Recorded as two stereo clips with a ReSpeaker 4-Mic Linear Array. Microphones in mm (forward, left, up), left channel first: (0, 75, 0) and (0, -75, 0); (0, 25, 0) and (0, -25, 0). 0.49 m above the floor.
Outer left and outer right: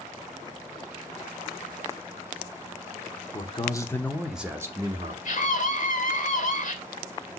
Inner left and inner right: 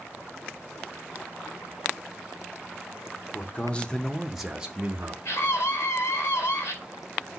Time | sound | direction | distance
3.3 | a man speaking | 35° left (ahead or behind) | 0.9 m
5.2 | a scream | 60° left (ahead or behind) | 2.5 m